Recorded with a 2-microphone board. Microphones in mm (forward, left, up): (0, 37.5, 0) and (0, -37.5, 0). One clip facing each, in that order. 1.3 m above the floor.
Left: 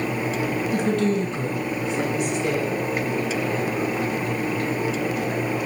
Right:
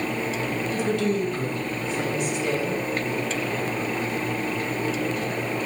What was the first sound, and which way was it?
A woman speaking, 50° left (ahead or behind).